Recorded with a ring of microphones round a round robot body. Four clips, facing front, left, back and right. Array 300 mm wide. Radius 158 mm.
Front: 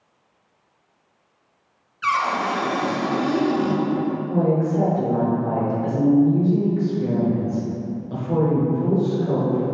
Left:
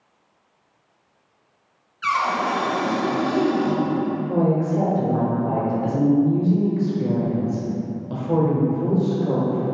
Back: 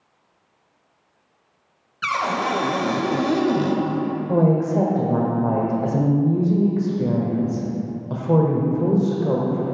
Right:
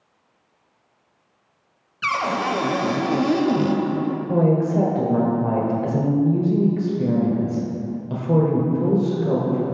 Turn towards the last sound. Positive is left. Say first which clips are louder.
# right 3 dB, back 3 dB
turn(degrees=-160)